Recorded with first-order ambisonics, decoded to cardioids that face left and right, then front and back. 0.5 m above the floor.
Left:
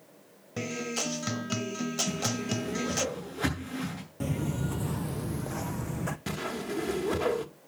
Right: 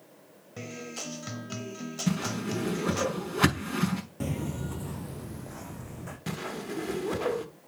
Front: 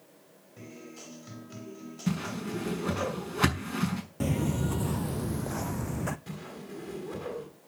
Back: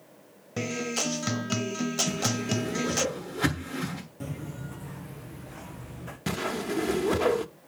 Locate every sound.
0.6 s a guitar: 160° left, 0.7 m
2.1 s a whoosh: 55° right, 6.5 m
4.2 s footsteps: 10° right, 0.5 m; by 6.2 s 30° left, 1.4 m
6.3 s a whoosh: 175° left, 1.1 m